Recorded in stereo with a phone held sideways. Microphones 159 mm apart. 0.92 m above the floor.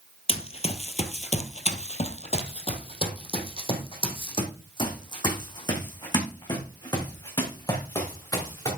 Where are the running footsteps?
40° left (ahead or behind), 1.2 m; by 8.7 s 25° left (ahead or behind), 5 m.